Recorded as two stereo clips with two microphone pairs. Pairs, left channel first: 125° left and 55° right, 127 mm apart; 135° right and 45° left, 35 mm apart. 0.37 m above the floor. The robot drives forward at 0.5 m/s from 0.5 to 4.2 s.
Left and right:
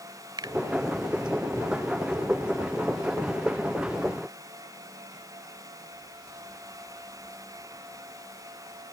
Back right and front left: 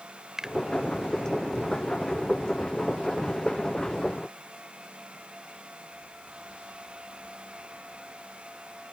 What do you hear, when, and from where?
0.4 s a finger snap: 25° right